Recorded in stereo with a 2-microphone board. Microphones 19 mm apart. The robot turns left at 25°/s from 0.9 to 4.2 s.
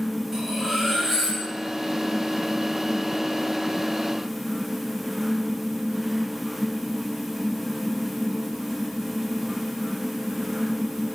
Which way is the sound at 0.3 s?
25° right (ahead or behind).